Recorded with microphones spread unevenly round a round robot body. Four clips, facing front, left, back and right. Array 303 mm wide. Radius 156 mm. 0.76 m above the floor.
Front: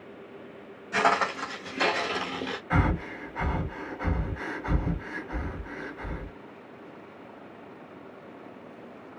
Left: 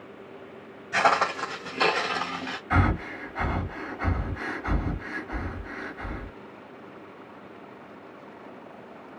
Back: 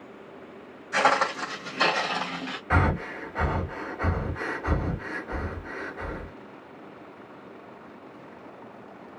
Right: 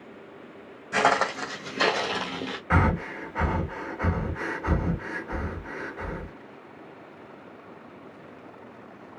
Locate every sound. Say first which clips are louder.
0.9 s footsteps: even, back 2 dB; 85° right, 1.4 m; by 2.6 s 35° right, 1.1 m
2.7 s breathing: right 1 dB, back 3 dB; 125° right, 1.4 m